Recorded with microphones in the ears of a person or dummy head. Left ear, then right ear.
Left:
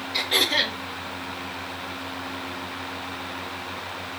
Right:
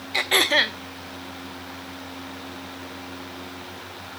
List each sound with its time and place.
0.1 s throat clearing: 30° right (ahead or behind), 0.5 m